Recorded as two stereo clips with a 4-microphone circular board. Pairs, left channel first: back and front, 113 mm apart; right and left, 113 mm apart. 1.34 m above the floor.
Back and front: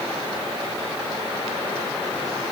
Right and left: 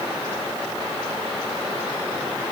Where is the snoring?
I don't hear snoring.